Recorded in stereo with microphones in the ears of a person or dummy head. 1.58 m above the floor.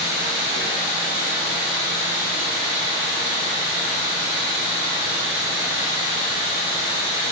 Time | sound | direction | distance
0.0 | running water | 65° right (ahead or behind) | 1.2 m